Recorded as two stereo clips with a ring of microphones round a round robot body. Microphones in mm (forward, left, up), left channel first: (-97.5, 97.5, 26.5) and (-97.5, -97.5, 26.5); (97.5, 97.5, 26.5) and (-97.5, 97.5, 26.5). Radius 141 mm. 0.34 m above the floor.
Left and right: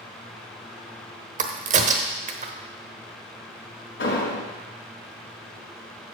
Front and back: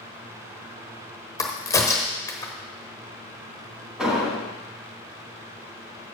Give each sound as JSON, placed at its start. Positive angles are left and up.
{"t": 1.4, "sound": "a crack", "azimuth_deg": -65, "distance_m": 0.9}
{"t": 4.0, "sound": "an explosion", "azimuth_deg": 95, "distance_m": 4.0}